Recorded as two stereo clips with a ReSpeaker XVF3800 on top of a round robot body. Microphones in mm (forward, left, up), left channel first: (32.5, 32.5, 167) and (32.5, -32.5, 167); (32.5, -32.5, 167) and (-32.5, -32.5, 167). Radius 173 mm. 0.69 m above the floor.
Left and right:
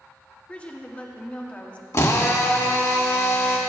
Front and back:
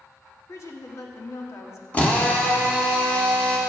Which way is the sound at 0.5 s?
25° left.